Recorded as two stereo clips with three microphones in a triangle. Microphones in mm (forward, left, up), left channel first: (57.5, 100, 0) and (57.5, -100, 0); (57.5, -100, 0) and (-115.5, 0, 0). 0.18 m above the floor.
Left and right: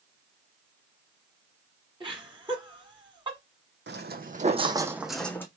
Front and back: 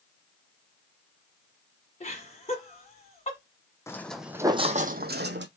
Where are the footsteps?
105° right, 0.7 m; by 5.5 s 165° left, 0.7 m.